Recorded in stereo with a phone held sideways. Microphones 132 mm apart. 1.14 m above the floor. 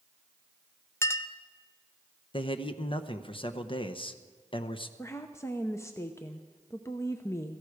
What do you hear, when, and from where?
1.0 s a clink: 20° left (ahead or behind), 0.6 m
2.3 s a man speaking: 40° left (ahead or behind), 0.8 m
5.0 s a woman speaking: 20° left (ahead or behind), 0.7 m